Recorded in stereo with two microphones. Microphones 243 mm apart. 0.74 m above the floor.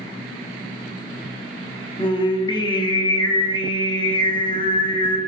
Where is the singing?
20° left (ahead or behind), 0.5 m.